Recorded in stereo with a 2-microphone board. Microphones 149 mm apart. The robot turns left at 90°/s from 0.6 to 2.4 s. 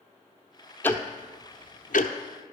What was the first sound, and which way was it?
Ticking, 10° left (ahead or behind).